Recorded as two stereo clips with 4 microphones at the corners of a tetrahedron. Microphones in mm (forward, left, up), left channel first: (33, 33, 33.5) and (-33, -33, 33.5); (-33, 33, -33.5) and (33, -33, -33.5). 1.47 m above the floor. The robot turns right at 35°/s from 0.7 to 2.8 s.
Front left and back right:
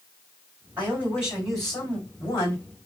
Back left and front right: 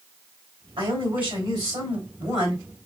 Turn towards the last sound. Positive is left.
turn(degrees=0)